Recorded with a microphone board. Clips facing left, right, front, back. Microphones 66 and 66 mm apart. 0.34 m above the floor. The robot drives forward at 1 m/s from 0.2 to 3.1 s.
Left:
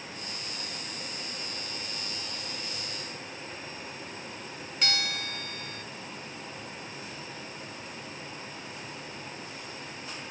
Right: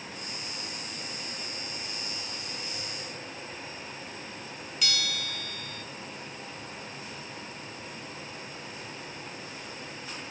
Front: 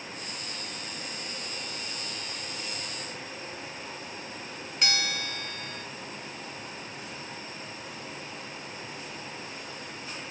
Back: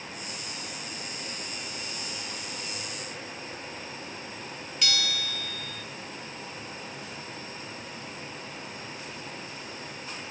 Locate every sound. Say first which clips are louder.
4.8 s a bell: left 2 dB, front 2 dB; 45° left, 0.7 m